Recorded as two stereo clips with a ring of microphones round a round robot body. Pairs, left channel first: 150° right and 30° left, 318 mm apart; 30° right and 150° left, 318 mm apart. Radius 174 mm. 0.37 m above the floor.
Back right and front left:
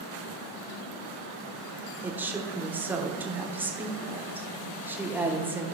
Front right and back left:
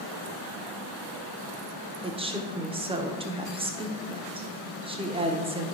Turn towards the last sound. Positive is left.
turn(degrees=105)